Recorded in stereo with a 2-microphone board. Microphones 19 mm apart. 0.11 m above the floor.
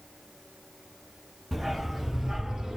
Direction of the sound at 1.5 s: 5° right (ahead or behind).